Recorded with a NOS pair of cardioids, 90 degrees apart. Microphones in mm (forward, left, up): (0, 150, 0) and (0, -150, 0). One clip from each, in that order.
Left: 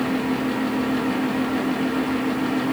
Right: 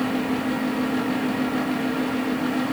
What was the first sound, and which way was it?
A fan, 10° left.